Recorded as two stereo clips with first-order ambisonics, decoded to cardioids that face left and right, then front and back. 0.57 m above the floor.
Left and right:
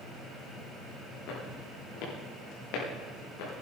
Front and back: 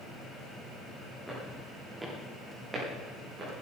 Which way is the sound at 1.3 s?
90° left.